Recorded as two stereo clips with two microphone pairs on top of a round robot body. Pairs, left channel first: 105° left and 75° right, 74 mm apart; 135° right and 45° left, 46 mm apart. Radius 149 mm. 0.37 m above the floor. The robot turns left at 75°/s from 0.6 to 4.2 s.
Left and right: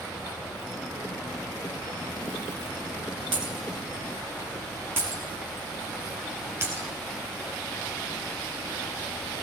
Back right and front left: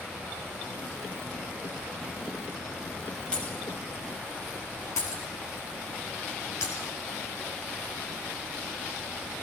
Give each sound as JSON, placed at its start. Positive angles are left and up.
{"t": 3.3, "sound": "breaking glass", "azimuth_deg": -65, "distance_m": 2.0}